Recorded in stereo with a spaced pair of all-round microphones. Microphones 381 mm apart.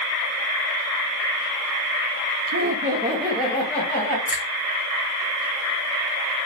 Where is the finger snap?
5° right (ahead or behind), 1.2 m.